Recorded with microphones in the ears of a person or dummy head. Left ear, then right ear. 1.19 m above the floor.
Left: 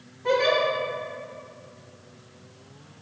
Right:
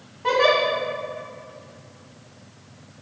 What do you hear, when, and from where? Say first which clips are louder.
0.2 s a giggle: right 3 dB; 40° right (ahead or behind), 1.5 m